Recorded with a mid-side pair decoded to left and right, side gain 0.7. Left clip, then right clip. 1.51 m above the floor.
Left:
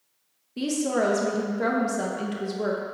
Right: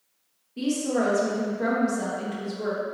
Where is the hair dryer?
I don't hear a hair dryer.